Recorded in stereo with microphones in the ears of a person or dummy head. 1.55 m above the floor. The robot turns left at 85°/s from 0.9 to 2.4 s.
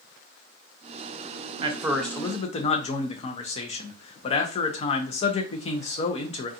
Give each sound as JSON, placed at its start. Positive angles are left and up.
{"t": 1.6, "sound": "a man speaking", "azimuth_deg": -145, "distance_m": 0.6}